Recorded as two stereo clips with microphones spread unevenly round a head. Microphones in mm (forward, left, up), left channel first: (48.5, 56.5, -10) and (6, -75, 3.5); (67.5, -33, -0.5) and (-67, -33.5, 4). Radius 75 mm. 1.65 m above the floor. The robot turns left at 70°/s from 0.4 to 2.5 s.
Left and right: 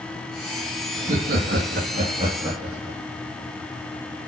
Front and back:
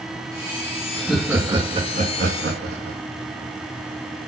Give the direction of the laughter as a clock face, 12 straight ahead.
2 o'clock.